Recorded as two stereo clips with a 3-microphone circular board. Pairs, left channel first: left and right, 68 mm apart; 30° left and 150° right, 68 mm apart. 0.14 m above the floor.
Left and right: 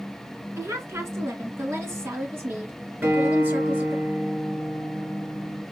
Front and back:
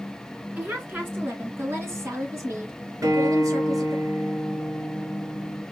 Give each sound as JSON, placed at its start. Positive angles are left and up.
{"t": 0.6, "sound": "a woman speaking", "azimuth_deg": -100, "distance_m": 2.0}
{"t": 3.0, "sound": "a guitar", "azimuth_deg": -140, "distance_m": 2.5}